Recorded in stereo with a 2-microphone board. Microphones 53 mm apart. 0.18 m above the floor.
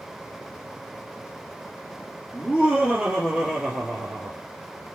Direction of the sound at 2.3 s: 25° right (ahead or behind).